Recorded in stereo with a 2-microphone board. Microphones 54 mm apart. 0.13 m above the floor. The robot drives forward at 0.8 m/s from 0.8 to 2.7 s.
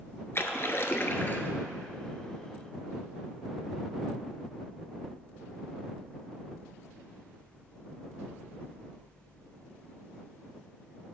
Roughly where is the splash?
Left.